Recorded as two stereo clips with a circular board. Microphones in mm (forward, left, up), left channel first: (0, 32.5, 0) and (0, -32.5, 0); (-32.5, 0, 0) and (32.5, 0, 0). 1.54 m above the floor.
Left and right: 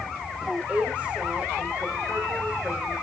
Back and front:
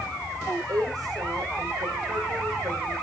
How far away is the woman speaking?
About 6 m.